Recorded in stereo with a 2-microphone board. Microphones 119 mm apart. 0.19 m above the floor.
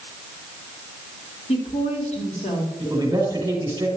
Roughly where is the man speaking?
Right.